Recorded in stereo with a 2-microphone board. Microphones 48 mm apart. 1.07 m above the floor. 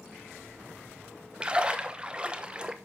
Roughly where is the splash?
Right.